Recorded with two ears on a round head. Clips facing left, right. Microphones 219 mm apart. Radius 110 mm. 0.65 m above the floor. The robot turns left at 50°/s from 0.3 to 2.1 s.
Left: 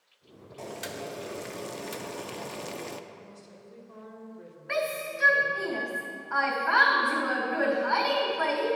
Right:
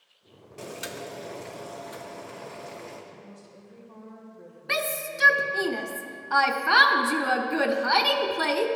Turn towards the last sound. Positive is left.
turn(degrees=-50)  # may be behind; listen again after turning